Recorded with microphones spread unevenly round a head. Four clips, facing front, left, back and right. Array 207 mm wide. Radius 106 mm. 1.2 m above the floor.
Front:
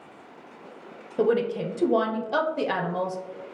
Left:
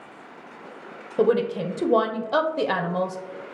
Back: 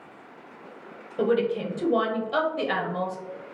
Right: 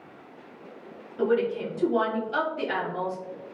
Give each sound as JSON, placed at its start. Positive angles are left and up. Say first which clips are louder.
{"t": 1.2, "sound": "a woman speaking", "louder": "left 4 dB, even", "azimuth_deg": 70, "distance_m": 1.0}